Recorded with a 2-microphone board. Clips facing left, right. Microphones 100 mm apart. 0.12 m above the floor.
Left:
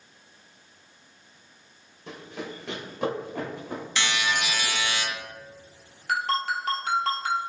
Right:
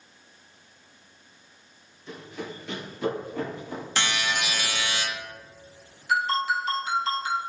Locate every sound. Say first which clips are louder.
2.1 s running footsteps: even; 90° left, 1.5 m; by 3.8 s 70° left (ahead or behind), 3.5 m
4.0 s a buzzer: left 1 dB; 45° right (ahead or behind), 1.2 m
6.1 s a ringtone: right 2 dB; 60° left (ahead or behind), 1.0 m